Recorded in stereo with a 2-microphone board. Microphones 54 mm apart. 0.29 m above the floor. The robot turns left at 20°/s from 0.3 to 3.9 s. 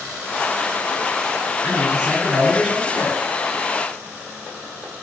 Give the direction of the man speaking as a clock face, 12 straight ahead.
5 o'clock.